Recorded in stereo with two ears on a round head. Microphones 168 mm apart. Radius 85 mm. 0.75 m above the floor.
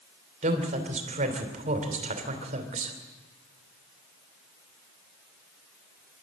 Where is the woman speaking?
40° right (ahead or behind), 3.5 m.